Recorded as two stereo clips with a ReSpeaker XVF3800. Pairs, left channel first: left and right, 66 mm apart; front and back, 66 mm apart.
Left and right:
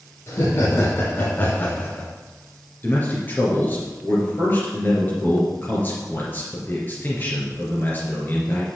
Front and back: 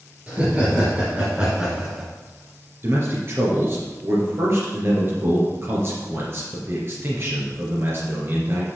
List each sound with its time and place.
0.3 s laughter: 120° left, 3 m; by 2.1 s 110° left, 1.6 m
2.8 s a man speaking: 140° left, 3 m